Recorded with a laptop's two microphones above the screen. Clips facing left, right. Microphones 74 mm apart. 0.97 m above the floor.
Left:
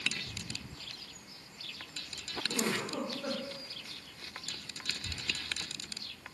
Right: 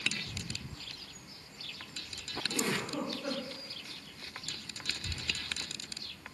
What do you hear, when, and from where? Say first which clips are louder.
2.5 s a giggle: even; 30° left (ahead or behind), 0.6 m